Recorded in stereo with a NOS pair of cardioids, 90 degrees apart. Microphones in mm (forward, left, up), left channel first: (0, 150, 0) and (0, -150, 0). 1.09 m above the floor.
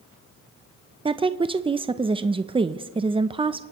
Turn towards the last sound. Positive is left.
turn(degrees=-20)